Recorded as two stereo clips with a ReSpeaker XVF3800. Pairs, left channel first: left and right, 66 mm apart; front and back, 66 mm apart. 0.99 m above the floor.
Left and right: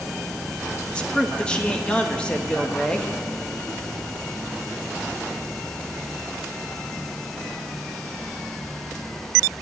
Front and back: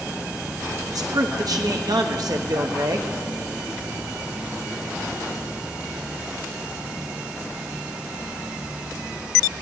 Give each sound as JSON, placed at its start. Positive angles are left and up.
{"t": 0.9, "sound": "a man speaking", "azimuth_deg": 165, "distance_m": 1.0}